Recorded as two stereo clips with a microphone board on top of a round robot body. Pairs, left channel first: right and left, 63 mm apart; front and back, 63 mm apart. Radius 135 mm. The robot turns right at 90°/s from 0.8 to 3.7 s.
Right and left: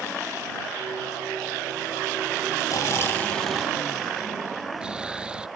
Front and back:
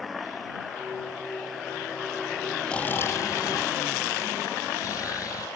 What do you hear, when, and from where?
2.7 s snoring: 75° right; by 5.5 s 15° left